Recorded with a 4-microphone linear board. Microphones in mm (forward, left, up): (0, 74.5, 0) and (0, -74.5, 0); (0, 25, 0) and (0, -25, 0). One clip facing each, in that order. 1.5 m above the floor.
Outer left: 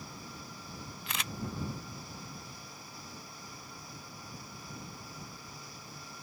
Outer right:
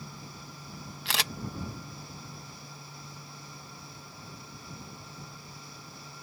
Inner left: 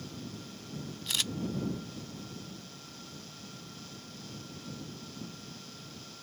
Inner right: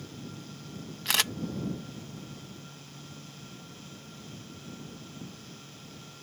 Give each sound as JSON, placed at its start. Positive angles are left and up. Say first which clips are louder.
{"t": 1.1, "sound": "a camera shutter", "louder": "outer right 6 dB, inner right 7 dB", "side_deg": -85}